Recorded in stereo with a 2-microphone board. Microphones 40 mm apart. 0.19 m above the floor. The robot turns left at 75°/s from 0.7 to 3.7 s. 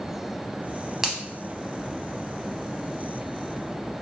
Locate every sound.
1.0 s a finger snap: 10° right (ahead or behind), 0.8 m; by 1.2 s 15° right (ahead or behind), 0.8 m